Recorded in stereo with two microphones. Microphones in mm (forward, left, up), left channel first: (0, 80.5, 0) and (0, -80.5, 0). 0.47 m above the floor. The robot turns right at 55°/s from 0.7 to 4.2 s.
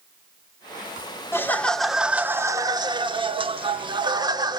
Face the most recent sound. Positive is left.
turn(degrees=-50)